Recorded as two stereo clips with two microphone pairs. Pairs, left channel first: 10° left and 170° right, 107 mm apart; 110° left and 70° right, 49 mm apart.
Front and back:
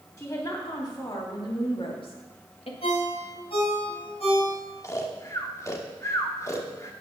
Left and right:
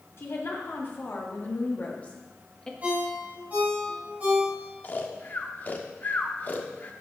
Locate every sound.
0.2 s a woman speaking: 70° left, 3 m; by 2.7 s 35° left, 1.9 m
2.8 s a ringtone: 15° right, 6 m
4.8 s snoring: 65° left, 1.1 m